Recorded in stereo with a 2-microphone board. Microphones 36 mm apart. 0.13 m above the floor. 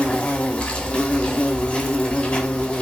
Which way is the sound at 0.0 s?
30° left (ahead or behind).